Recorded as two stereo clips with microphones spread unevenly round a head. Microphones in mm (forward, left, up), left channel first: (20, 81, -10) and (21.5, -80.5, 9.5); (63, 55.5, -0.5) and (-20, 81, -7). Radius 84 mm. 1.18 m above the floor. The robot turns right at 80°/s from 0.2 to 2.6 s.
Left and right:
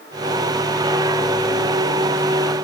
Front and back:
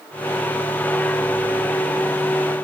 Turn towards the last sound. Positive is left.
No sound to turn to.